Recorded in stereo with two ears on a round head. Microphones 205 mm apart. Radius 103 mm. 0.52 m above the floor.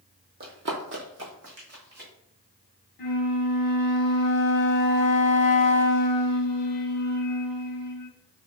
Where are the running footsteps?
45° right (ahead or behind), 0.7 m; by 2.1 s 55° right (ahead or behind), 1.4 m.